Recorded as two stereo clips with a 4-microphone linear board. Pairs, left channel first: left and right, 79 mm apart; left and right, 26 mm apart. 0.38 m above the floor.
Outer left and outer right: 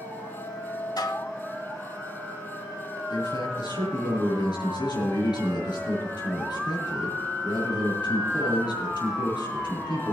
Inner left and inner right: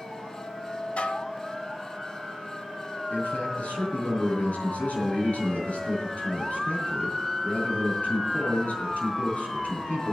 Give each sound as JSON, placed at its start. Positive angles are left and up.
{"t": 1.0, "sound": "dishes clattering", "side_deg": 55, "distance_m": 1.1}
{"t": 3.1, "sound": "a man speaking", "side_deg": 65, "distance_m": 7.0}